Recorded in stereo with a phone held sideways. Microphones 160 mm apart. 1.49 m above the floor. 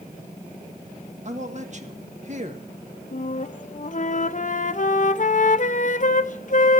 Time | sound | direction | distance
1.2 | a man speaking | 50° right (ahead or behind) | 1.6 m
3.1 | a flute | 55° left (ahead or behind) | 0.6 m